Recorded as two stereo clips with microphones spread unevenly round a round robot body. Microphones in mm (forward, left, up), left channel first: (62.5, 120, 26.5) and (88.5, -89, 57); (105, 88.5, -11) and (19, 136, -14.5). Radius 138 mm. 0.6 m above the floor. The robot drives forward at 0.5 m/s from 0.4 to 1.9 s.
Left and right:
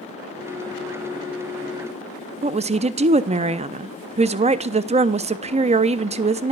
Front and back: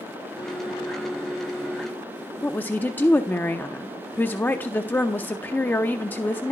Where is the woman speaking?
65° right, 0.6 m.